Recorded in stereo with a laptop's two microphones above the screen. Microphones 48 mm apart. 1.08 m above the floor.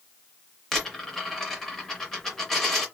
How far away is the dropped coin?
About 0.8 m.